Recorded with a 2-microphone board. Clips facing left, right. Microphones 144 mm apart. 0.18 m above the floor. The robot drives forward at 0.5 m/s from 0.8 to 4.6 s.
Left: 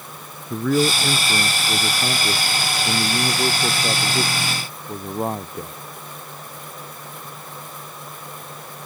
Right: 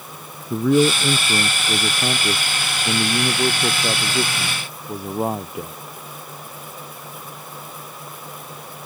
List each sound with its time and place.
0.5 s a man speaking: 10° right (ahead or behind); by 5.8 s 5° right (ahead or behind)